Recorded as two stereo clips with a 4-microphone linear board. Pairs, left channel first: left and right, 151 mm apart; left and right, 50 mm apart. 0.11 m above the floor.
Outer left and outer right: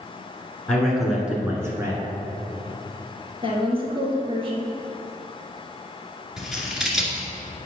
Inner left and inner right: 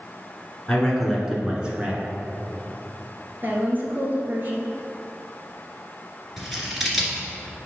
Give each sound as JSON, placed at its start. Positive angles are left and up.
{"t": 0.7, "sound": "a man speaking", "side_deg": 5, "distance_m": 1.7}
{"t": 3.4, "sound": "a woman speaking", "side_deg": -40, "distance_m": 1.7}
{"t": 6.4, "sound": "scissors", "side_deg": -5, "distance_m": 1.9}